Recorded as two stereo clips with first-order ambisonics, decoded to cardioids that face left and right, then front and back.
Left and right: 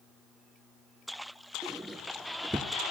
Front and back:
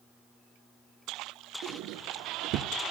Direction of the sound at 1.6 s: 165° right.